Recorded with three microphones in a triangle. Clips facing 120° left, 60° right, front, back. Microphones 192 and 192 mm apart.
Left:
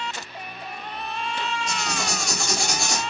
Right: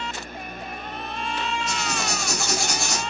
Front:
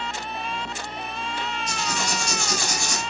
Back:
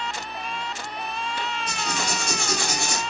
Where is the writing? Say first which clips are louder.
Right 1 dB, front 1 dB; 145° right, 2 m.